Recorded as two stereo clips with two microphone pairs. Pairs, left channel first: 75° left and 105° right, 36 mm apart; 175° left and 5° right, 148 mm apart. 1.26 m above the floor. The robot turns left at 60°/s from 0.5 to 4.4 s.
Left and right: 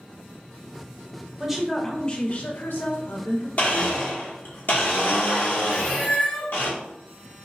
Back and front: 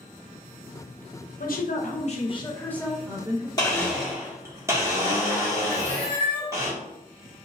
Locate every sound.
1.4 s a woman speaking: straight behind, 0.7 m; by 3.5 s 55° left, 0.7 m
3.6 s a blender: 115° left, 1.0 m; by 6.7 s 65° left, 1.0 m
5.7 s a cat meowing: 105° left, 1.0 m